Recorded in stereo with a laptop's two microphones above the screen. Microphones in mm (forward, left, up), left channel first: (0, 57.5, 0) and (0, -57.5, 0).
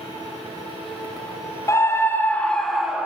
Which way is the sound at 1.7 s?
25° left (ahead or behind).